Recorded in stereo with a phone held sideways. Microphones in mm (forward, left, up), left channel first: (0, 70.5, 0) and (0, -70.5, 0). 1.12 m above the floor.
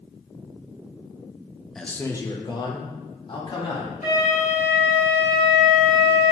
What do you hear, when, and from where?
1.8 s a man speaking: centre (ahead or behind), 0.5 m; by 3.9 s 45° left (ahead or behind), 2.0 m
4.0 s a flute: 75° left (ahead or behind), 1.9 m